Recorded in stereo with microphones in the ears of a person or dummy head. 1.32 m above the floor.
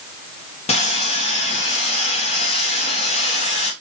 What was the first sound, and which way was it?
Sawing, 30° left (ahead or behind).